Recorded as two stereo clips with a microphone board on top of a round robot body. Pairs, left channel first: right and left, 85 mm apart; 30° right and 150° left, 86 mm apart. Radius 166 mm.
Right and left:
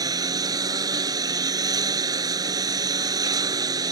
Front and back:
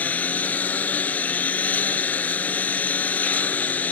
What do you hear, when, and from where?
0.0 s a lawn mower: 45° left